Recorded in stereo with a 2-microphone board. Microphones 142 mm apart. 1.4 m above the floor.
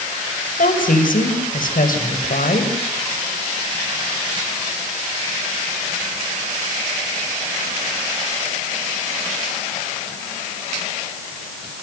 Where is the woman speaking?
75° left (ahead or behind), 5.5 m.